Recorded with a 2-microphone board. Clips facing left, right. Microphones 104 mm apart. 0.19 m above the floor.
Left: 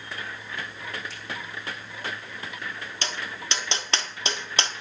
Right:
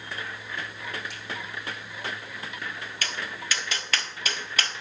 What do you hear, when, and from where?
1.1 s a finger snap: 75° right (ahead or behind), 5.5 m
3.0 s tapping: 30° left (ahead or behind), 0.9 m